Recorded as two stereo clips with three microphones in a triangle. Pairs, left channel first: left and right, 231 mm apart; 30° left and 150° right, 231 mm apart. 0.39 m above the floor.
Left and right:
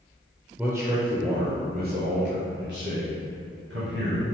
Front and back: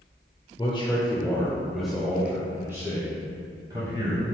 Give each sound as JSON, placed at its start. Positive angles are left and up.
{"t": 0.6, "sound": "a man speaking", "azimuth_deg": -15, "distance_m": 1.0}